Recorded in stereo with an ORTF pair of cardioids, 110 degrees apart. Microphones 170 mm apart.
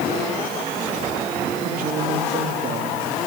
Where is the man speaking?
55° right, 3 m.